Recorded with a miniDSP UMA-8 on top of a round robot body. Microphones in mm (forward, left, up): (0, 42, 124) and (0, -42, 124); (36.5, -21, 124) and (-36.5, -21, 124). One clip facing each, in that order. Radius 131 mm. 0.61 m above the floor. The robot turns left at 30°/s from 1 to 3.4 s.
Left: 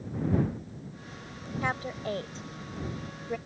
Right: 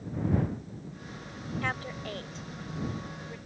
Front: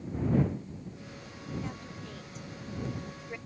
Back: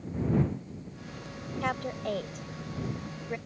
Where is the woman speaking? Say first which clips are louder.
Left 4 dB, back 10 dB; 165° left; by 3.4 s 110° left.